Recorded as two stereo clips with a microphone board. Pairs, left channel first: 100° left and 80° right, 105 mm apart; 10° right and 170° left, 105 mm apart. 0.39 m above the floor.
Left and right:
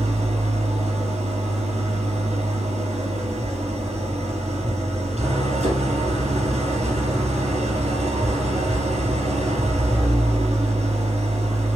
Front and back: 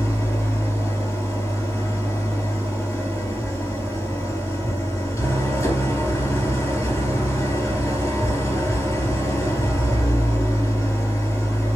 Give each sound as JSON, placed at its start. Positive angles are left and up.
{"t": 0.0, "sound": "an engine running", "azimuth_deg": -75, "distance_m": 3.0}